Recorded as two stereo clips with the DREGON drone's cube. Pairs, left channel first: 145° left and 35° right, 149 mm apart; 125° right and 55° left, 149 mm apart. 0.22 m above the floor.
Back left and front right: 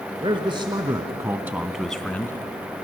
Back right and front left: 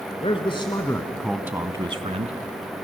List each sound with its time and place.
0.2 s a man speaking: 85° right, 1.9 m; by 2.4 s 75° left, 1.6 m